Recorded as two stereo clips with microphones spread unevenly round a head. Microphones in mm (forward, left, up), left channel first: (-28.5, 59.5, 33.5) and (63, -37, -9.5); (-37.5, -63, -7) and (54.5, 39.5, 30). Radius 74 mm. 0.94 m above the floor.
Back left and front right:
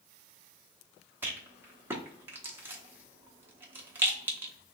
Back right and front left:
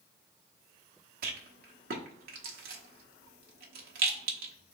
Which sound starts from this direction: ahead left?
A rattle, at 1.2 s.